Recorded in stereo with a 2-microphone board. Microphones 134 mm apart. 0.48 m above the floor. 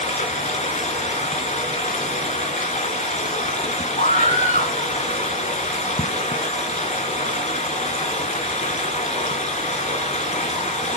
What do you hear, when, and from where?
0.0 s running water: 75° left (ahead or behind), 3.5 m
4.0 s a scream: 70° left (ahead or behind), 7.5 m